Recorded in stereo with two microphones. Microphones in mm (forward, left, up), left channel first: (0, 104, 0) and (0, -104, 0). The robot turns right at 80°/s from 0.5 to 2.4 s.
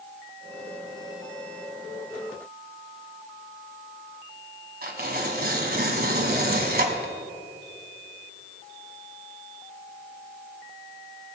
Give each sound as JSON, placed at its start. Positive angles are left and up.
{"t": 4.8, "sound": "tearing paper", "side_deg": -50, "distance_m": 1.5}